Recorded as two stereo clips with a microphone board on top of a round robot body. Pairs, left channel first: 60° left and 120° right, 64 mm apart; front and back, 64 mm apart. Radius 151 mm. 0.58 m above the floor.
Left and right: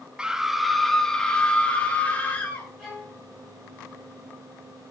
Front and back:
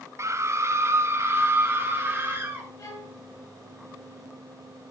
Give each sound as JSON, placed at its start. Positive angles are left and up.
{"t": 0.2, "sound": "a scream", "azimuth_deg": 165, "distance_m": 1.1}
{"t": 2.8, "sound": "a violin", "azimuth_deg": -25, "distance_m": 5.5}